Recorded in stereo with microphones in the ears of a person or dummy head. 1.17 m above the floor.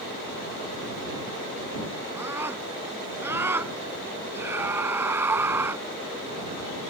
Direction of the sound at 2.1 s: 15° right (ahead or behind).